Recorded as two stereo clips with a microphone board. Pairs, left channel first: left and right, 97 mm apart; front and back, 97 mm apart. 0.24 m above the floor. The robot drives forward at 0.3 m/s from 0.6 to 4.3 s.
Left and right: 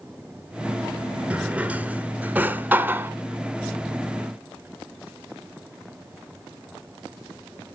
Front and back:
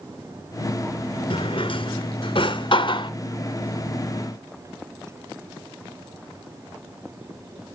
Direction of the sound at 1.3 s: 15° right.